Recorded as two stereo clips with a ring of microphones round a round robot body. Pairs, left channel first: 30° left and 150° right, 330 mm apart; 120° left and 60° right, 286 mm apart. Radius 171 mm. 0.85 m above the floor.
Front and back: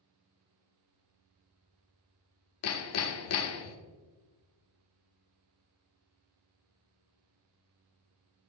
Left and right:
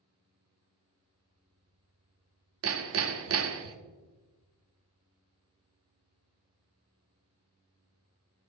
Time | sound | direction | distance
2.6 | hammering | 15° right | 0.8 m